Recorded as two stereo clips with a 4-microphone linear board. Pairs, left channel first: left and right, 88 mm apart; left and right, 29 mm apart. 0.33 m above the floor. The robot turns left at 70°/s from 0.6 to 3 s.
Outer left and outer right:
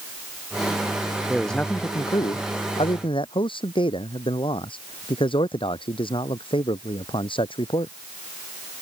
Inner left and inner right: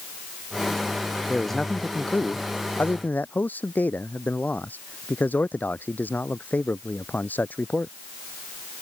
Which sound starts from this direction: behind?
A man speaking, at 1.3 s.